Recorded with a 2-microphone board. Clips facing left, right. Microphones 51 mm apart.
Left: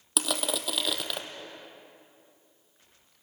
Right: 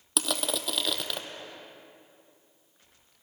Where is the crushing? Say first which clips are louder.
Even; 5° left (ahead or behind), 1.3 m.